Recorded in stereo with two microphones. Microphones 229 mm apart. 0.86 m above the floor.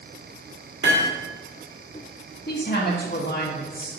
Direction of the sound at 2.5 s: 45° left (ahead or behind).